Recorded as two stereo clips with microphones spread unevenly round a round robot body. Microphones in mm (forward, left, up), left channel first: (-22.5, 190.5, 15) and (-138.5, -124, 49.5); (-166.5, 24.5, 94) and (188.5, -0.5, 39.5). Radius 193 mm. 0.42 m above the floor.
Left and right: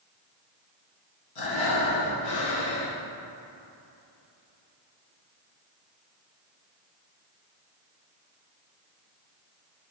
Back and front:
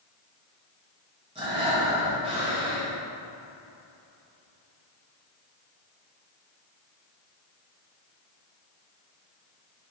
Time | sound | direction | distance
1.4 | breathing | 70° left | 3.5 m